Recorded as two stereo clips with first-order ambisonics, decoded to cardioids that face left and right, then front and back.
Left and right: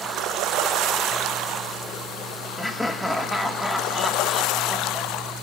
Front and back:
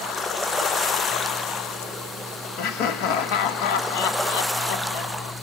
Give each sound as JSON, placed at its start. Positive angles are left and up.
{"t": 2.6, "sound": "laughter", "azimuth_deg": 0, "distance_m": 1.3}